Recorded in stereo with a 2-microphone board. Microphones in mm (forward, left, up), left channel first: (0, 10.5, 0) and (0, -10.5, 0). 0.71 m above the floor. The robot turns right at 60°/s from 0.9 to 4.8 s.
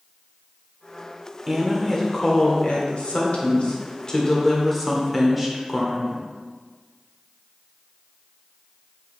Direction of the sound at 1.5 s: 15° right.